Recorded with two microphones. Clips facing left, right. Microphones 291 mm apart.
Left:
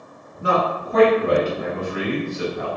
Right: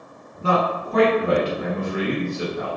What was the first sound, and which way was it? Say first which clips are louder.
A man speaking: even; 15° left (ahead or behind).